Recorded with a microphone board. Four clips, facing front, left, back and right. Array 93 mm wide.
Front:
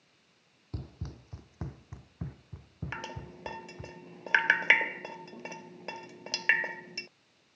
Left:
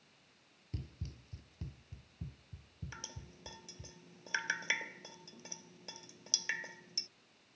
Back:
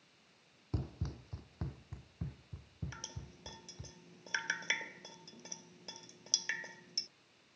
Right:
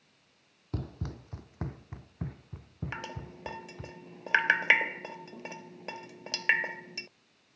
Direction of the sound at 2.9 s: 45° right.